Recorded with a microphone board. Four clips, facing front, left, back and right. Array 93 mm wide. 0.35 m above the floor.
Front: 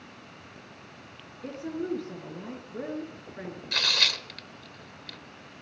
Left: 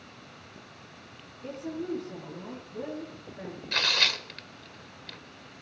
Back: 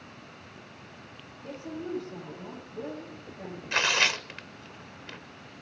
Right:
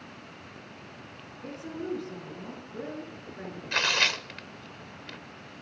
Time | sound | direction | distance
1.4 | a woman speaking | 10° right | 6.5 m
3.7 | tearing paper | 155° right | 0.8 m